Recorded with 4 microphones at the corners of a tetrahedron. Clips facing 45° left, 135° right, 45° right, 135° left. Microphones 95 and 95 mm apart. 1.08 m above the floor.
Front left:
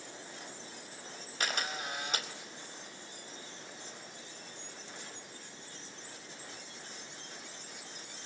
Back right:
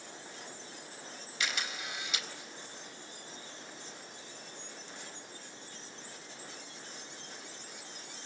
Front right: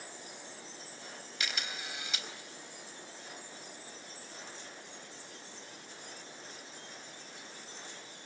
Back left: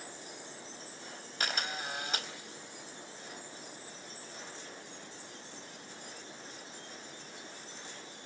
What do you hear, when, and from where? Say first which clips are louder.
1.4 s a camera shutter: front left 2 dB, back left 5 dB; 90° left, 4 m